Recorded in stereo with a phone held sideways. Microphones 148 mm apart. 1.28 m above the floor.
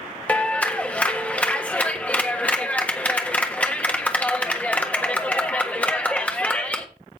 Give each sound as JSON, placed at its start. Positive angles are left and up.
{"t": 0.3, "sound": "a clap", "side_deg": 10, "distance_m": 1.3}